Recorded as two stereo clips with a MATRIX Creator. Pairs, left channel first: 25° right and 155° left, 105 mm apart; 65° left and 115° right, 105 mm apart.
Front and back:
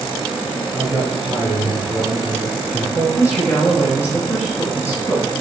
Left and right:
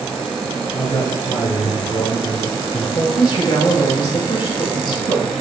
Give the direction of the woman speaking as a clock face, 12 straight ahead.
11 o'clock.